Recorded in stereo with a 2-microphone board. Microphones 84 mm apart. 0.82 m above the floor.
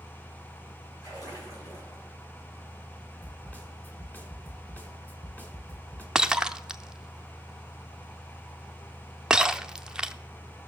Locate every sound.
1.0 s a splash: 45° left (ahead or behind), 7 m
3.2 s a snare drum: 20° left (ahead or behind), 1.7 m
6.2 s breaking glass: 10° right (ahead or behind), 0.5 m